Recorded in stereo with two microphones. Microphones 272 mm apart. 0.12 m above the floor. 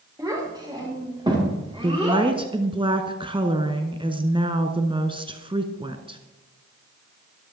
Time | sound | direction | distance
0.2 | a child speaking | 15° right (ahead or behind) | 8.5 m
1.8 | a woman speaking | 20° right (ahead or behind) | 1.2 m